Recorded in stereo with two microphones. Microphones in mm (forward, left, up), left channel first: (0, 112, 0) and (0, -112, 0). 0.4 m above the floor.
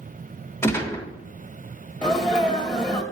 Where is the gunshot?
10° left (ahead or behind), 1.0 m.